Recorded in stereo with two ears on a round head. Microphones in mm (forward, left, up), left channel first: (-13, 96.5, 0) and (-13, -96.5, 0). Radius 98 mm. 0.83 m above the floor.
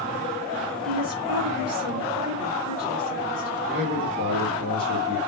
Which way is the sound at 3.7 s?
30° right (ahead or behind).